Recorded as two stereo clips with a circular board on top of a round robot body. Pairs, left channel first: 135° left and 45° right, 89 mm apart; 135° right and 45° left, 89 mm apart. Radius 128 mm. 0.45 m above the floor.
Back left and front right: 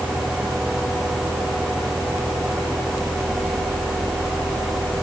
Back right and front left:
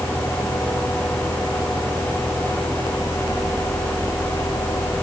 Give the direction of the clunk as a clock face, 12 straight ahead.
I don't hear a clunk.